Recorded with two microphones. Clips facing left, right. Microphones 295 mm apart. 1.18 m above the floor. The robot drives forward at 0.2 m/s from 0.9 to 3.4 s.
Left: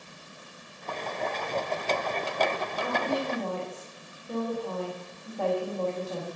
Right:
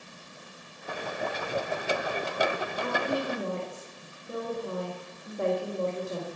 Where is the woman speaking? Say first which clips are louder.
Left 1 dB; 20° right (ahead or behind), 1.5 m.